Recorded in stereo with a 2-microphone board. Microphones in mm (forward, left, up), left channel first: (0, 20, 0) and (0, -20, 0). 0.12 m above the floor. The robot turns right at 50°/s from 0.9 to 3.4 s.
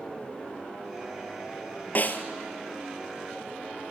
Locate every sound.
1.9 s a snare drum: 45° left (ahead or behind), 1.2 m; by 2.2 s 55° left (ahead or behind), 1.2 m